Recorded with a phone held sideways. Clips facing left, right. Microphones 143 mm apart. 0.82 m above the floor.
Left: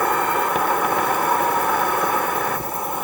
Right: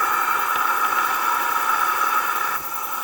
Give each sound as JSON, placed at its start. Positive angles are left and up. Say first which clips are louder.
{"t": 0.0, "sound": "an insect", "louder": "left 5 dB", "side_deg": 50}